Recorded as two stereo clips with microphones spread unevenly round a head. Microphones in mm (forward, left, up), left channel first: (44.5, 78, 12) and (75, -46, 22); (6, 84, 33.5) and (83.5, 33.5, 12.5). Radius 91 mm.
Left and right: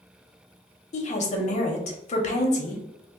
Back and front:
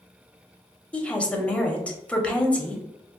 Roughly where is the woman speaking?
Left.